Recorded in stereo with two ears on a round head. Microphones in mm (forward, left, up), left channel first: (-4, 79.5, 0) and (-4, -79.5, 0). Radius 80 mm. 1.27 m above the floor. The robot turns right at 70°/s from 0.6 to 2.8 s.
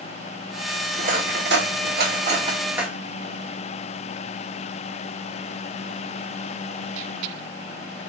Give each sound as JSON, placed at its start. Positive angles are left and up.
{"t": 1.0, "sound": "cutlery clinking", "side_deg": -40, "distance_m": 1.4}